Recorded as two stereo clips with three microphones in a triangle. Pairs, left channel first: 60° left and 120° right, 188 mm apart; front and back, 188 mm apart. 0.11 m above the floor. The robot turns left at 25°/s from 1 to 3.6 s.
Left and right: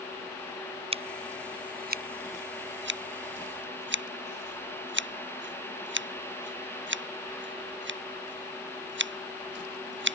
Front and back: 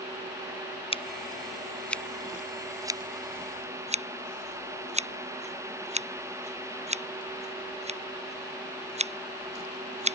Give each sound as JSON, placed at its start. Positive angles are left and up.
{"t": 0.9, "sound": "scissors", "azimuth_deg": -60}